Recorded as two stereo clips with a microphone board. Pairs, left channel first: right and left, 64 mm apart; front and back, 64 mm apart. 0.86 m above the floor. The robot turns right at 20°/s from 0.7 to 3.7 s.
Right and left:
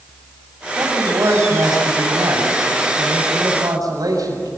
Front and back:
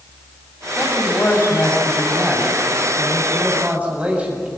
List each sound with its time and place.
0.8 s a man speaking: 55° left, 6.5 m; by 4.5 s 110° left, 6.5 m